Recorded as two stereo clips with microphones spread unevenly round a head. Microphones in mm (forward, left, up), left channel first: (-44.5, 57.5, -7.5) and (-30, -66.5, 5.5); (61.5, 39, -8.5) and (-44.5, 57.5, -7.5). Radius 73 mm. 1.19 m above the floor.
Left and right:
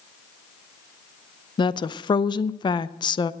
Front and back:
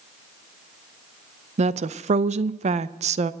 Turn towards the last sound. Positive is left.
turn(degrees=150)